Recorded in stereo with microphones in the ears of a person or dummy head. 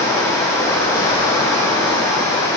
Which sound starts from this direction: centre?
Running water, at 0.0 s.